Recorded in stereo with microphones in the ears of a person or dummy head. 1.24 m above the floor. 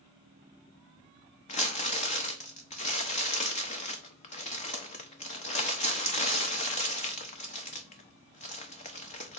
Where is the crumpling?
30° left (ahead or behind), 0.8 m.